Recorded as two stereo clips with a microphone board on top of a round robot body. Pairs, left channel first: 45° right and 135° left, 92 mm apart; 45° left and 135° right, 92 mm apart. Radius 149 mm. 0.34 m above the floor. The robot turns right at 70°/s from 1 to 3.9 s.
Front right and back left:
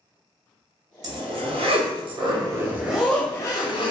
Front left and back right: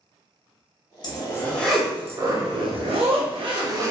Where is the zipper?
85° left, 0.5 m; by 3.9 s 75° right, 0.5 m.